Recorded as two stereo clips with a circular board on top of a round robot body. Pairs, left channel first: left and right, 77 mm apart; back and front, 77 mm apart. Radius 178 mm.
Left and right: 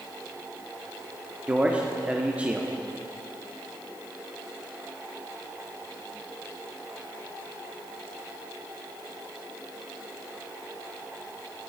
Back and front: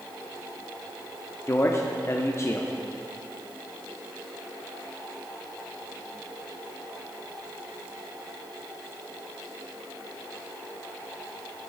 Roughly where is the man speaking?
Behind.